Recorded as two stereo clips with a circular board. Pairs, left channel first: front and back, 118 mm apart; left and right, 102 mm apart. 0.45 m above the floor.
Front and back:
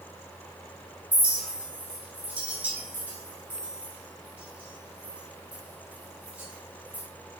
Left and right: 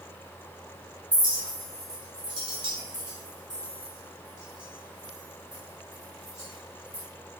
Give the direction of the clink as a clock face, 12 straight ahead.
4 o'clock.